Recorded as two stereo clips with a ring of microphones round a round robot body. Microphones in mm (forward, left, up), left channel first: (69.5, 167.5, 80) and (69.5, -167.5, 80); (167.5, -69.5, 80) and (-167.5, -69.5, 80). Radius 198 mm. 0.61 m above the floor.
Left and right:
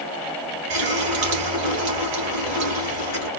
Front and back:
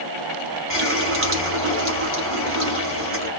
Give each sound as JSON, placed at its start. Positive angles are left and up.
{"t": 0.7, "sound": "a running tap", "azimuth_deg": -125, "distance_m": 2.5}